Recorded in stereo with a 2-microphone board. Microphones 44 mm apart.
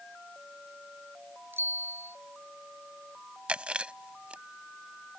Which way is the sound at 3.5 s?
25° right (ahead or behind).